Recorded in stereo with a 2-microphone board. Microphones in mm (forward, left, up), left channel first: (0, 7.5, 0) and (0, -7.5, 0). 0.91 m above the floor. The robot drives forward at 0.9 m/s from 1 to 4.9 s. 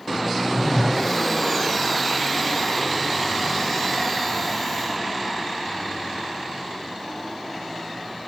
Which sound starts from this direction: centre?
A phone buzzing, at 0.6 s.